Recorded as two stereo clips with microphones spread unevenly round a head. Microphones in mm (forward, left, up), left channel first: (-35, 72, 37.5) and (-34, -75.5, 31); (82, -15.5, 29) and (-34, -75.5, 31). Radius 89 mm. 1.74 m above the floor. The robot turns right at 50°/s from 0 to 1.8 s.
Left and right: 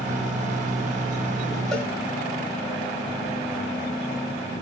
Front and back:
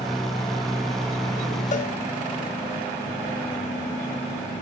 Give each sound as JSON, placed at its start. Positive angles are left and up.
{"t": 1.7, "sound": "a cowbell", "azimuth_deg": 5, "distance_m": 2.5}